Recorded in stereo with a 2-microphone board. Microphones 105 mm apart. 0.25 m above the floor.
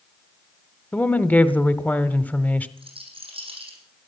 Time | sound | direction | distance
0.9 | a woman speaking | 15° left (ahead or behind) | 0.9 m
2.8 | a rattle | 60° right (ahead or behind) | 6 m